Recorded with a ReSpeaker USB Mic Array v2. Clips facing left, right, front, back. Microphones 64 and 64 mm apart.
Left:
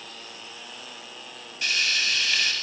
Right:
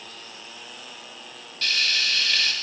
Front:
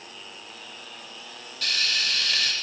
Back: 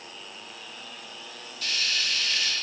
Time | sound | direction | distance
1.6 | frying | 15° left | 0.8 m